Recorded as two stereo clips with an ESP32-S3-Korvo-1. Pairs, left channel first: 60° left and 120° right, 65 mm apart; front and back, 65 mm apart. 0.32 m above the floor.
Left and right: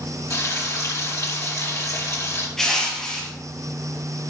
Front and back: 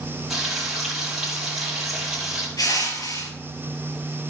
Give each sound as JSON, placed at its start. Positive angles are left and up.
{"t": 0.3, "sound": "frying", "azimuth_deg": 95, "distance_m": 5.0}
{"t": 2.6, "sound": "crushing", "azimuth_deg": -25, "distance_m": 3.0}